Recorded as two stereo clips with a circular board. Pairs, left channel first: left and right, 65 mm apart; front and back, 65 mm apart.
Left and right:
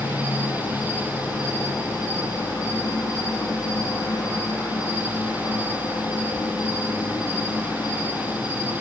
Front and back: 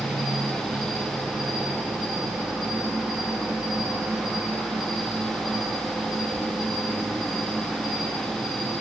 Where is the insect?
100° left, 2.5 m.